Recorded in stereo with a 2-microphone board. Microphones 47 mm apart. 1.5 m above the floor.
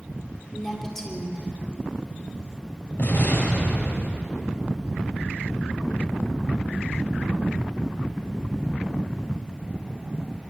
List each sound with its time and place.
0.5 s a woman speaking: 10° left (ahead or behind), 4 m
3.0 s an explosion: 50° left (ahead or behind), 7 m